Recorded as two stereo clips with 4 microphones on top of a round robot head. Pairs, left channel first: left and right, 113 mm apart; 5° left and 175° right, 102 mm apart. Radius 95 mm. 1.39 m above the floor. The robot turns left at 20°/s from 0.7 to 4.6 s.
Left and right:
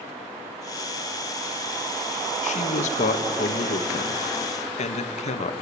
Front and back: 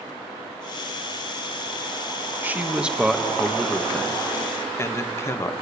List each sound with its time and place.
2.4 s a man speaking: 115° left, 1.5 m; by 5.5 s 70° left, 1.5 m